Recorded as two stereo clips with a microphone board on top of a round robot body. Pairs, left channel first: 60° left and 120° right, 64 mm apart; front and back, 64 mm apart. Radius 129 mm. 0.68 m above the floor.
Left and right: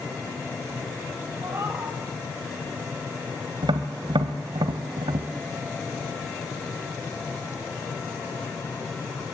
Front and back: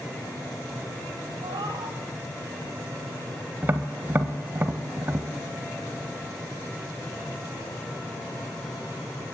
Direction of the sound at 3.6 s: 120° right.